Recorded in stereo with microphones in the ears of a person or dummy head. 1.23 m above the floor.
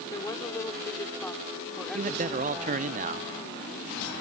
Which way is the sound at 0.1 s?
30° left (ahead or behind).